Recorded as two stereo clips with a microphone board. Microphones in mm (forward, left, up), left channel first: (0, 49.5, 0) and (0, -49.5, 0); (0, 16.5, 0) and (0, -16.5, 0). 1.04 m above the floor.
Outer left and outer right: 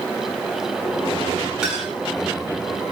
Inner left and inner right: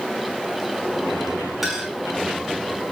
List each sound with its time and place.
1.6 s a clink: 10° right (ahead or behind), 6.5 m